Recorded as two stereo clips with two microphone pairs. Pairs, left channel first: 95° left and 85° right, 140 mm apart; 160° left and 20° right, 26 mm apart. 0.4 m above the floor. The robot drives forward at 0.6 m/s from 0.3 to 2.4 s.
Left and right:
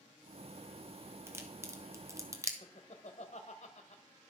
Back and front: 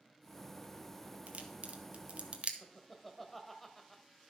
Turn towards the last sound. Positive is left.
turn(degrees=85)